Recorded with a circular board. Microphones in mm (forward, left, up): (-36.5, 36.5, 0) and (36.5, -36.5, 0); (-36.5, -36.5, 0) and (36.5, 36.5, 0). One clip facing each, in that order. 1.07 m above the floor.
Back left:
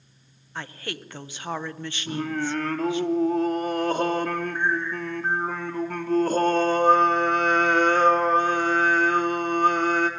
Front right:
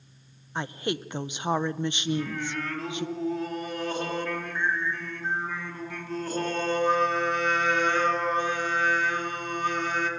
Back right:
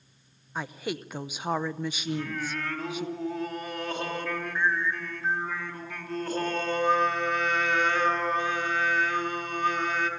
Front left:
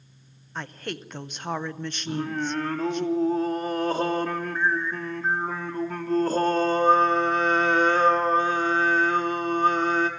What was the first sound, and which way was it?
A woman speaking, 65° right.